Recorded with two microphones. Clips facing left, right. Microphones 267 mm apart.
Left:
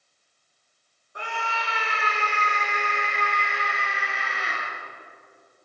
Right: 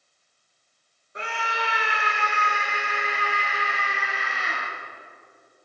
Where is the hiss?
I don't hear a hiss.